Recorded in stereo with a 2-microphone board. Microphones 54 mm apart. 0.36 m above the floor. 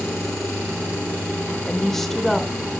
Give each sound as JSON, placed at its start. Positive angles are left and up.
{"t": 1.7, "sound": "a woman speaking", "side_deg": 5, "distance_m": 0.9}